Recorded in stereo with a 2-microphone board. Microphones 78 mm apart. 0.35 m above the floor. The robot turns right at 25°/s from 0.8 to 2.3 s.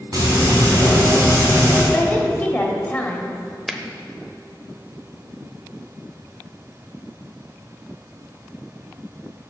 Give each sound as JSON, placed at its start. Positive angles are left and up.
{"t": 0.1, "sound": "frying", "side_deg": -50, "distance_m": 3.5}
{"t": 1.9, "sound": "a woman speaking", "side_deg": 25, "distance_m": 1.3}
{"t": 3.7, "sound": "a finger snap", "side_deg": -5, "distance_m": 0.7}